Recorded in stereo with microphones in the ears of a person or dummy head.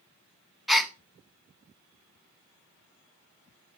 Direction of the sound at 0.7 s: 5° right (ahead or behind).